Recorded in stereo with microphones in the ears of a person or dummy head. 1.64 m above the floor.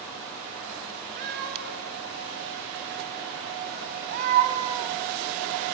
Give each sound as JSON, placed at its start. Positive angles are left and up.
{"t": 1.2, "sound": "a cat meowing", "side_deg": -60, "distance_m": 4.5}